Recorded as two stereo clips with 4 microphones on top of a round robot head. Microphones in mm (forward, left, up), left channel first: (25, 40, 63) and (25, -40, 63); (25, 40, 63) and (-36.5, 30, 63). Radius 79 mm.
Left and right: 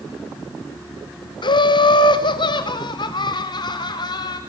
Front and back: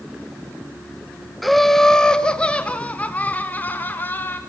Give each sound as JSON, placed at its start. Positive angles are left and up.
{"t": 1.4, "sound": "laughter", "azimuth_deg": 100, "distance_m": 1.8}